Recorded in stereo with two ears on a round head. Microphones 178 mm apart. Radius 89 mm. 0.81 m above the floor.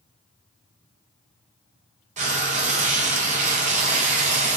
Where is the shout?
No shout in this recording.